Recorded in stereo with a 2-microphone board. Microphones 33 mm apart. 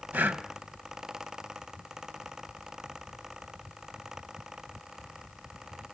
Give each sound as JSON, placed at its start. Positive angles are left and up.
{"t": 0.1, "sound": "breathing", "side_deg": -80, "distance_m": 1.1}